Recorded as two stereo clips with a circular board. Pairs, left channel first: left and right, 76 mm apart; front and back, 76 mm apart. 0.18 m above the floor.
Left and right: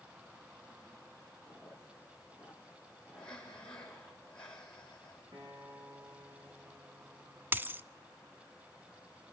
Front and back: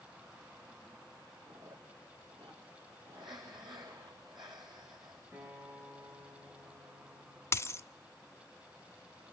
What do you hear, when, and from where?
1.4 s chewing: 160° right, 8 m
3.2 s breathing: 170° left, 6 m
5.3 s a guitar: 115° right, 8.5 m
7.5 s a dropped coin: 40° right, 0.6 m